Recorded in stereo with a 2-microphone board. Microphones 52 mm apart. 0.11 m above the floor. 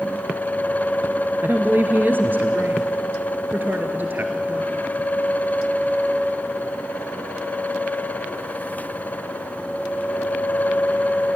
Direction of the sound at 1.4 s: 40° right (ahead or behind).